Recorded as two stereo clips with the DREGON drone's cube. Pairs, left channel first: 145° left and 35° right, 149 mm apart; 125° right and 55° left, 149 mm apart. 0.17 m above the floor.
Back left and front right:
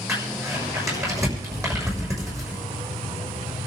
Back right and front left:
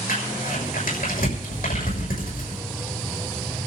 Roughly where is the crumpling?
Right.